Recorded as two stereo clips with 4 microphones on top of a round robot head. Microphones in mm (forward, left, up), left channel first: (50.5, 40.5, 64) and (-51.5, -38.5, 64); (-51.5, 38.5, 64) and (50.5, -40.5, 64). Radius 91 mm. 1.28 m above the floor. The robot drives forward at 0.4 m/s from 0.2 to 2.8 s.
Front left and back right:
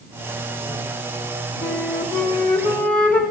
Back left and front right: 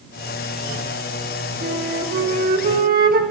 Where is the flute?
30° right, 1.8 m; by 3.2 s 45° right, 1.4 m.